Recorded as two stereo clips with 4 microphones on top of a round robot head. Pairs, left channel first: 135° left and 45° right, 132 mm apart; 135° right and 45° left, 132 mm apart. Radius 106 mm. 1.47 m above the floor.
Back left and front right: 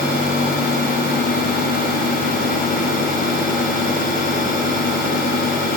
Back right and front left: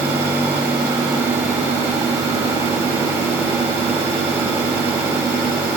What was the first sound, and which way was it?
Only background noise.